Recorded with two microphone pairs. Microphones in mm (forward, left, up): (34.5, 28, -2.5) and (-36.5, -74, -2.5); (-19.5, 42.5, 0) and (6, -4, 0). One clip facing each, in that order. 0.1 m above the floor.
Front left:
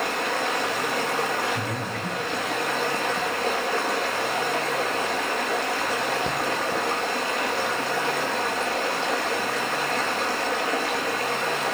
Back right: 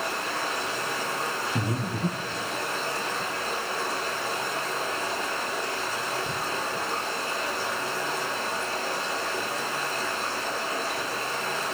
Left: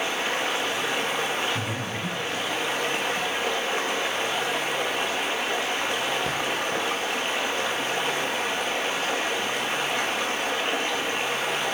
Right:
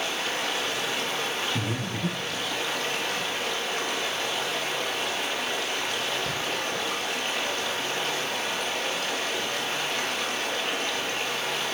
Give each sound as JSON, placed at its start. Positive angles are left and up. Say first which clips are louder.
{"t": 0.0, "sound": "running water", "louder": "front left 5 dB, left 3 dB", "azimuth_deg": 55, "distance_m": 1.9}
{"t": 1.6, "sound": "breathing", "louder": "even, left 1 dB", "azimuth_deg": -110, "distance_m": 1.9}